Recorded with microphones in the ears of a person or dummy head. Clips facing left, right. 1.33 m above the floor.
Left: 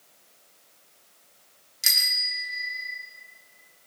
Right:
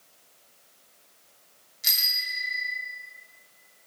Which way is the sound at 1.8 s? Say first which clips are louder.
Left 2 dB; 70° left (ahead or behind).